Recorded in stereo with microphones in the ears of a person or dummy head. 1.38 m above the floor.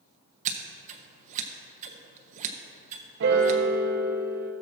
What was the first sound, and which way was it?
Scissors, 40° right (ahead or behind).